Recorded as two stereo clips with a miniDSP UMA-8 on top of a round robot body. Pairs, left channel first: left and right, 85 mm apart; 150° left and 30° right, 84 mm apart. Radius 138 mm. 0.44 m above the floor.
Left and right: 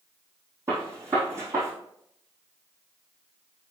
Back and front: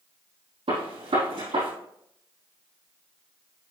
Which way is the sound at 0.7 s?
30° right.